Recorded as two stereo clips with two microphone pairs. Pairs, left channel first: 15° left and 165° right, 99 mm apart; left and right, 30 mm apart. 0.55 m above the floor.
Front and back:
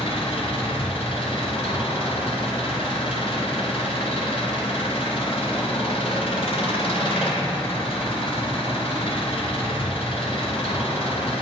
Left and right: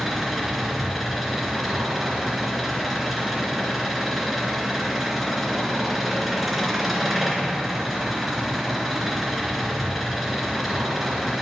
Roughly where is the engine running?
Ahead.